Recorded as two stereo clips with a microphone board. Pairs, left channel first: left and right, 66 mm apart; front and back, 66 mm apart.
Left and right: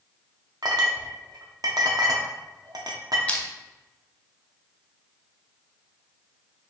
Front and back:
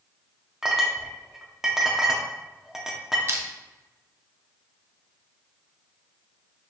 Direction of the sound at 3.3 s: 155° left.